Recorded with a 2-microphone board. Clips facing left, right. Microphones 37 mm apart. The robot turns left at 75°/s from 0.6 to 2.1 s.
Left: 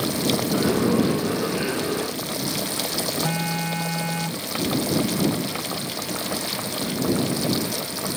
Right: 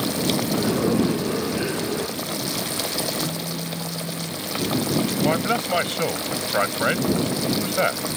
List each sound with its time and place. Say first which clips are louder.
3.2 s a phone buzzing: left 3 dB; 85° left
5.2 s a man speaking: right 4 dB; 80° right